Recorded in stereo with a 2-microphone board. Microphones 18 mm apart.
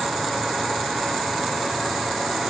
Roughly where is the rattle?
No rattle in this recording.